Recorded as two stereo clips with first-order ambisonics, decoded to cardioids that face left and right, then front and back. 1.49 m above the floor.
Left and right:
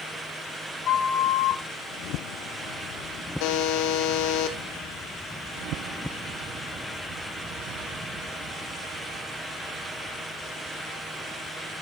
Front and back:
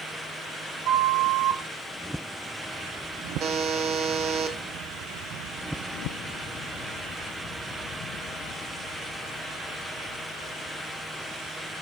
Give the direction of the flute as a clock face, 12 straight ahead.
7 o'clock.